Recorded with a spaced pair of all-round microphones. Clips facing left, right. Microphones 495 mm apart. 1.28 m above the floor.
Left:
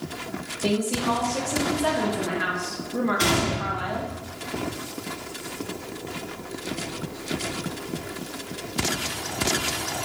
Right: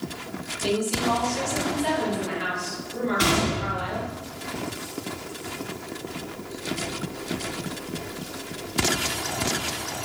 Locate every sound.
0.6 s a woman speaking: 70° left (ahead or behind), 1.8 m
3.2 s a gunshot: 30° right (ahead or behind), 2.5 m